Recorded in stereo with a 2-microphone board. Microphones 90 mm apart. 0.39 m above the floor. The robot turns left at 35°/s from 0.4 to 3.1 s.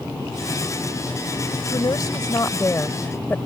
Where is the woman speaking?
75° left; by 3.4 s 25° left.